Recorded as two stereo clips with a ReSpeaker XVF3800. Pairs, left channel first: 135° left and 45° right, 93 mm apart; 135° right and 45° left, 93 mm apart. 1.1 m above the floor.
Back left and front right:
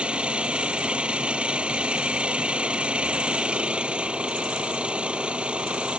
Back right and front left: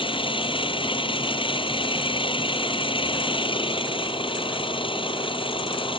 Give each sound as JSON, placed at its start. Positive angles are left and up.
{"t": 0.0, "sound": "an engine running", "azimuth_deg": -125}